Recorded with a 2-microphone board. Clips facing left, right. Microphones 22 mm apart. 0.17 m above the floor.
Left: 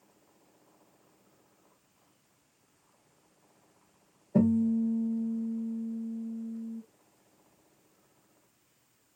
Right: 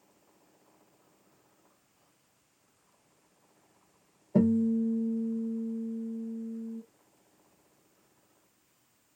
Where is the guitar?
45° right (ahead or behind), 2 m.